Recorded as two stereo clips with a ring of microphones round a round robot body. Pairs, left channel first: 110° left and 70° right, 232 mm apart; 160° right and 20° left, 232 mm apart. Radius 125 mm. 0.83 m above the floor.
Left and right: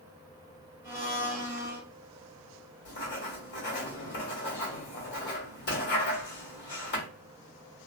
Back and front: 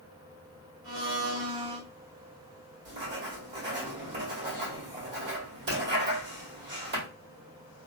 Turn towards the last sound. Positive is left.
turn(degrees=65)